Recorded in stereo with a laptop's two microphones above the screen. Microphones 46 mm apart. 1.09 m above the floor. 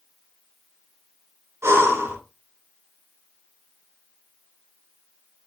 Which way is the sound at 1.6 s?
80° right.